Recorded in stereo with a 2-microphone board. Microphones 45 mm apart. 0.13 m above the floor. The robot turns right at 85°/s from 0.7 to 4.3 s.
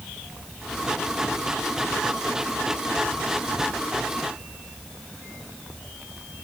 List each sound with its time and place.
Only background noise.